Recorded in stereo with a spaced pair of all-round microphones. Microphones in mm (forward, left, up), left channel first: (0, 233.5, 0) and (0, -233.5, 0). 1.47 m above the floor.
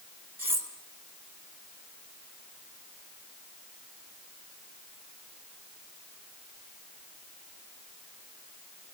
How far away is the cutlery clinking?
About 4 m.